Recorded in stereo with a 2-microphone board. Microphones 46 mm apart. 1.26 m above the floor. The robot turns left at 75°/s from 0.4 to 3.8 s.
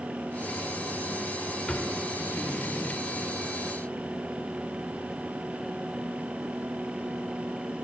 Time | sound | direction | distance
1.7 | a drawer | 15° left (ahead or behind) | 1.0 m